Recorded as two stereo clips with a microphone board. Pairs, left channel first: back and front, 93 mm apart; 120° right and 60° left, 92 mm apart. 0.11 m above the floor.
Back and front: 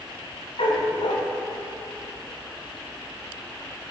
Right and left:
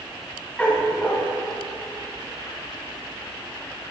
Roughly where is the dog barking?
Behind.